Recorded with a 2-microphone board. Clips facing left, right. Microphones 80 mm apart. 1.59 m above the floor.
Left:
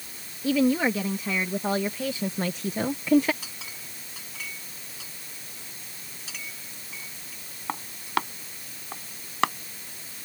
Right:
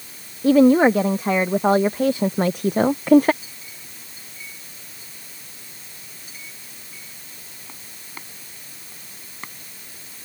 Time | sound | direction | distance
0.4 | a woman speaking | 50° right (ahead or behind) | ?
3.4 | a clink | 85° left | ?